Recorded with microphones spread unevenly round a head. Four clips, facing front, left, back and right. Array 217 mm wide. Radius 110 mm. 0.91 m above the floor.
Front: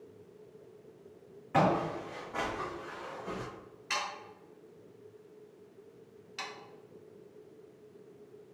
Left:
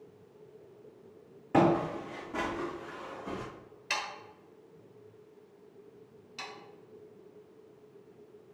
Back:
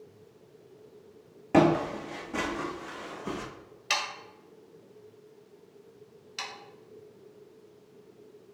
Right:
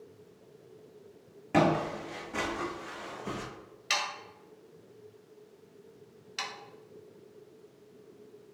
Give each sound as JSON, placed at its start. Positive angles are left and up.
{"t": 1.5, "sound": "footsteps", "azimuth_deg": -175, "distance_m": 2.5}
{"t": 3.9, "sound": "sawing", "azimuth_deg": 170, "distance_m": 1.7}
{"t": 6.4, "sound": "sawing", "azimuth_deg": -100, "distance_m": 1.7}